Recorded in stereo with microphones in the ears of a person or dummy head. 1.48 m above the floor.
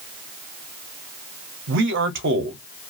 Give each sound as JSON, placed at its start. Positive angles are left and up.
{"t": 1.7, "sound": "a man speaking", "side_deg": -55, "distance_m": 0.7}